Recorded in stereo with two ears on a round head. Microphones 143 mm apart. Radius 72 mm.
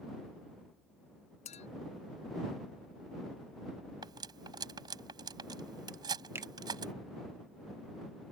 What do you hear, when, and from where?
1.4 s a clink: 45° left (ahead or behind)
4.0 s cutlery clinking: 25° right (ahead or behind)
6.3 s a finger snap: 15° right (ahead or behind)